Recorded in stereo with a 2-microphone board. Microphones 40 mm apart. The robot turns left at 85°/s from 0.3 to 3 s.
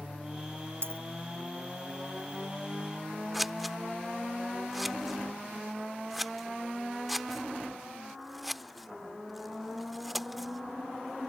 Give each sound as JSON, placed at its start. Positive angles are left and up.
{"t": 0.8, "sound": "a dropped coin", "side_deg": -85}
{"t": 3.3, "sound": "scissors", "side_deg": -5}